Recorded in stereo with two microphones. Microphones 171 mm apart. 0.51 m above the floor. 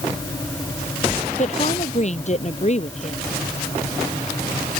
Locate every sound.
1.4 s a woman speaking: 45° left (ahead or behind)